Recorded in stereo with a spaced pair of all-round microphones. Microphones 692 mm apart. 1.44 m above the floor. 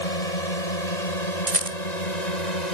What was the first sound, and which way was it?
A drone, 70° left (ahead or behind).